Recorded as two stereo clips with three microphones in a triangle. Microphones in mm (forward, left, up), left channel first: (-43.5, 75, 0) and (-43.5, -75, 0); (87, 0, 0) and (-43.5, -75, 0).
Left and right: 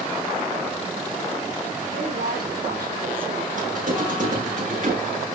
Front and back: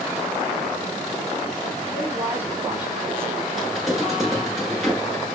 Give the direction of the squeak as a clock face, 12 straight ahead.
2 o'clock.